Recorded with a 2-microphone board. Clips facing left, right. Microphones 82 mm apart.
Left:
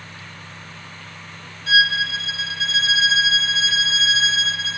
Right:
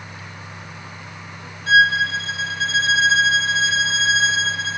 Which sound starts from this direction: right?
A violin, at 1.7 s.